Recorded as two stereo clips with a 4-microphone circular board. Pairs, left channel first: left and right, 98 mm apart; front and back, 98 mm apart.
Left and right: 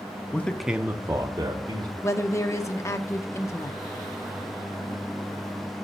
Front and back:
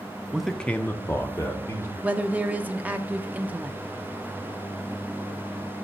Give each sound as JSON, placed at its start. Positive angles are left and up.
{"t": 0.3, "sound": "a man speaking", "azimuth_deg": 105, "distance_m": 0.6}
{"t": 2.0, "sound": "a woman speaking", "azimuth_deg": 120, "distance_m": 0.8}